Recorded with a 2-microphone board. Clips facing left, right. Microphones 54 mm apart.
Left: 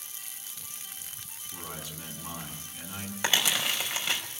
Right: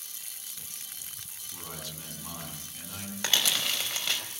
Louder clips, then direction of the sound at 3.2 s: Left 2 dB; 15° left (ahead or behind).